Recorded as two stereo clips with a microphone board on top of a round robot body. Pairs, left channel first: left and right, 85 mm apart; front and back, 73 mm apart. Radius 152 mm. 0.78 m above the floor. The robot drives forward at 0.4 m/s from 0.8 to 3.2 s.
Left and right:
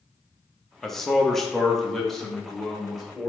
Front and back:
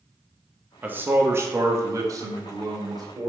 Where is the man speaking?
170° left, 1.0 m; by 3.3 s 175° left, 1.6 m.